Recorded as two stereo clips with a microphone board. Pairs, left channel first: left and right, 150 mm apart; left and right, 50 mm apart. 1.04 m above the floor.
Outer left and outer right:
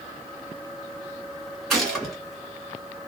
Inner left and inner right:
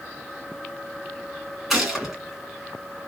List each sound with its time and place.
1.7 s a gunshot: centre (ahead or behind), 1.6 m